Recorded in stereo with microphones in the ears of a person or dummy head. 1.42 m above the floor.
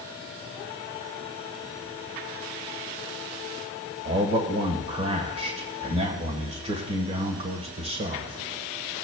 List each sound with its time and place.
4.0 s a man speaking: 30° right (ahead or behind), 1.3 m